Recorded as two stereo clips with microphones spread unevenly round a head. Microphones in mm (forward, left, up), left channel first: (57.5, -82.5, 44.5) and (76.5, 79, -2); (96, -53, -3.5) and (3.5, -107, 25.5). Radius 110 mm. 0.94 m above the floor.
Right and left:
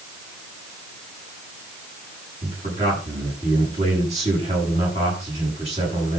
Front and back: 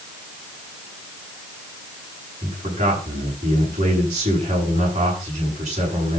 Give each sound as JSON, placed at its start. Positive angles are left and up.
{"t": 2.4, "sound": "a man speaking", "azimuth_deg": 145, "distance_m": 8.0}